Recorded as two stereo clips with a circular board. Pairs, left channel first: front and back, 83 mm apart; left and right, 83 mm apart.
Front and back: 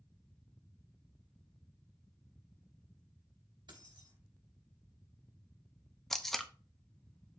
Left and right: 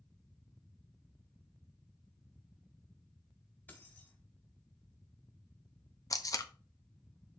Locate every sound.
3.7 s keys jangling: 160° left, 2.5 m
6.1 s tape being pulled: 85° left, 0.7 m